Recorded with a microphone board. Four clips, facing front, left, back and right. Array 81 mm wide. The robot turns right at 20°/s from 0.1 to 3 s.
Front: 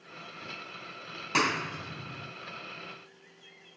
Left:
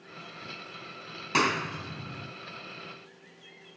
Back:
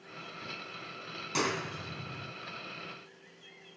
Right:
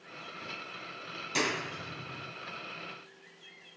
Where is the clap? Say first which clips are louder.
Left 6 dB, front 4 dB; 45° left, 2.5 m; by 2.3 s 65° left, 2.5 m.